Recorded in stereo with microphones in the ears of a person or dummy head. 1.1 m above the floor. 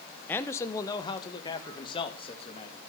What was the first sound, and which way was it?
A man speaking, 10° left (ahead or behind).